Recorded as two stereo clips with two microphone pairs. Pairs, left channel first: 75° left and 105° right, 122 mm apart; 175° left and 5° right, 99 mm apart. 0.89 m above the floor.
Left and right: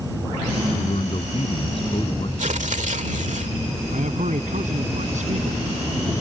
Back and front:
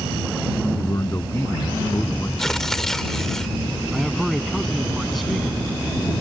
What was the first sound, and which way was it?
A man speaking, 115° left.